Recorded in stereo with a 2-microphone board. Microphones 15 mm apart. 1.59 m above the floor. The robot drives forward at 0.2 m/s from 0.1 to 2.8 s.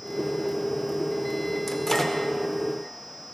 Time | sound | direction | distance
1.7 | a microwave | 20° left (ahead or behind) | 0.9 m